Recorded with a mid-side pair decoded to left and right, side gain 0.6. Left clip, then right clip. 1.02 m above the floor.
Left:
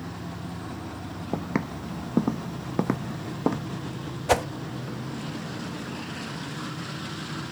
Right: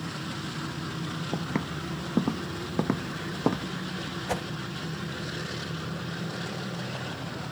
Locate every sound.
1.3 s footsteps: 20° left; by 3.7 s straight ahead
4.3 s a whoosh: 45° left